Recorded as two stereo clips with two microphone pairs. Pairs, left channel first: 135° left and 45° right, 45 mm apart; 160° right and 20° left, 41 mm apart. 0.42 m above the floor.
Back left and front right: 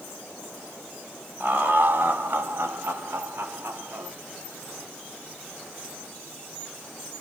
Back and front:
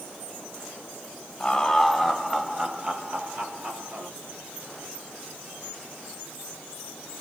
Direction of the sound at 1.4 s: 85° right.